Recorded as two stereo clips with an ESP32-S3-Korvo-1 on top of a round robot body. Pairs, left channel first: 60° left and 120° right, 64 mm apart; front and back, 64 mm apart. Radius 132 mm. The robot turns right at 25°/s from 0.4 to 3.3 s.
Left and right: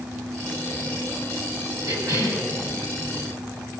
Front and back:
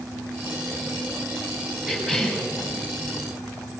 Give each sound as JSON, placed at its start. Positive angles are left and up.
{"t": 1.9, "sound": "a cough", "azimuth_deg": -100, "distance_m": 4.5}